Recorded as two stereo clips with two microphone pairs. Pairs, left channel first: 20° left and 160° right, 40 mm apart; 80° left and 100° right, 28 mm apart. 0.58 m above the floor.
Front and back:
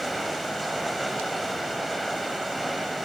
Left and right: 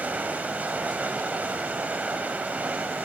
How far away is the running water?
About 2 m.